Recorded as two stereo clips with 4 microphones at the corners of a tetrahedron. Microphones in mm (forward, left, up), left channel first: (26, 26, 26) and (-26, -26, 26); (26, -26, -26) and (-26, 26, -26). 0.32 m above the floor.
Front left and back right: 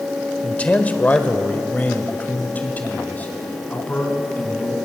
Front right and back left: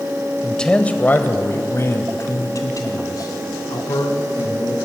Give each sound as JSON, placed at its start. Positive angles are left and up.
{"t": 0.4, "sound": "a man speaking", "azimuth_deg": 25, "distance_m": 1.3}